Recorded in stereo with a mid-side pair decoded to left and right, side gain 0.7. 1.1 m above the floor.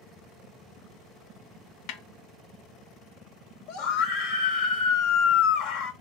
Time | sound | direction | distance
1.9 | a snare drum | 65° left | 0.7 m
3.7 | a scream | 65° left | 1.6 m